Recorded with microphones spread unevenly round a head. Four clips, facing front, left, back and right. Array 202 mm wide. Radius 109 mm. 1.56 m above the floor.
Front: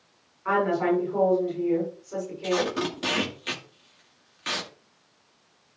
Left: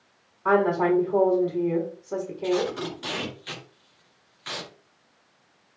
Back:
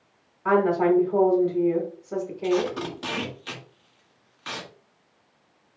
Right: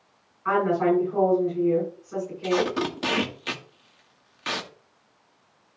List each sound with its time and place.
0.5 s a woman speaking: 135° left, 5.5 m
2.4 s tape being pulled: 75° right, 1.7 m